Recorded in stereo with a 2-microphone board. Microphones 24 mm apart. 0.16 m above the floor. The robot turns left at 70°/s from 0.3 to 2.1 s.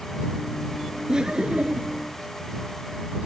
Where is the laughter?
35° right; by 2.0 s 105° right.